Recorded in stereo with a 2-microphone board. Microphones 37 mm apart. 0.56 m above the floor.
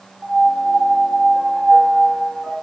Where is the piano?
20° right (ahead or behind), 1.2 m.